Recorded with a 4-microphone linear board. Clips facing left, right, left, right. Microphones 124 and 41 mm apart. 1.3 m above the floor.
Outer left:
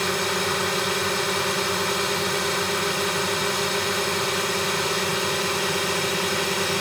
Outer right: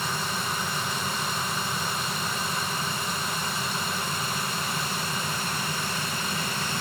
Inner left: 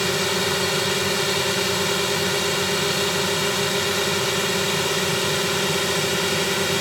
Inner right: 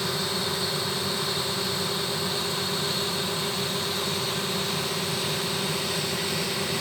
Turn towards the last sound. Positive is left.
turn(degrees=75)  # may be behind; listen again after turning